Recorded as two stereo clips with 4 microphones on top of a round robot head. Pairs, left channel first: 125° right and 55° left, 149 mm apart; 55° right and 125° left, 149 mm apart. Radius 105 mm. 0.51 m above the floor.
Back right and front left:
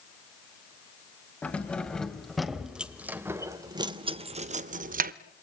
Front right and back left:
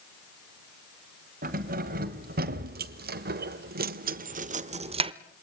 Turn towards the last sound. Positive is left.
turn(degrees=70)